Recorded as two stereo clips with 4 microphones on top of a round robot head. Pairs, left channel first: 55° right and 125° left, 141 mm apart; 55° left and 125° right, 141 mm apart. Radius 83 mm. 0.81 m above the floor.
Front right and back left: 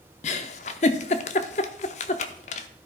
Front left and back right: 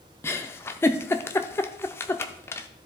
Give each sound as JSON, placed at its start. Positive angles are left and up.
{"t": 0.2, "sound": "a giggle", "azimuth_deg": -15, "distance_m": 0.5}